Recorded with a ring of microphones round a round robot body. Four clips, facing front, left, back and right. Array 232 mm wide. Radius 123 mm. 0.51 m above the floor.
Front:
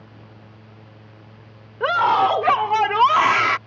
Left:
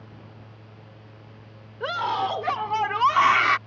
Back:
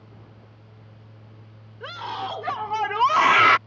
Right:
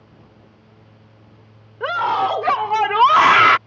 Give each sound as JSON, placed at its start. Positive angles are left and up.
{"t": 1.8, "sound": "a scream", "azimuth_deg": -15}